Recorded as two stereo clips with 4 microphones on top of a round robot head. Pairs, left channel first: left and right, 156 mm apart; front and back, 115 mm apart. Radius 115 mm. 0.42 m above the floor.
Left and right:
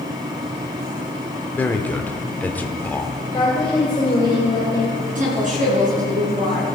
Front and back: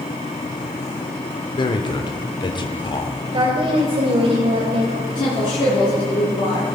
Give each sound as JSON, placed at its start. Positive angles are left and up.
{"t": 1.5, "sound": "a man speaking", "azimuth_deg": 15, "distance_m": 1.2}
{"t": 3.3, "sound": "a woman speaking", "azimuth_deg": 155, "distance_m": 2.5}
{"t": 5.1, "sound": "a woman speaking", "azimuth_deg": -60, "distance_m": 5.0}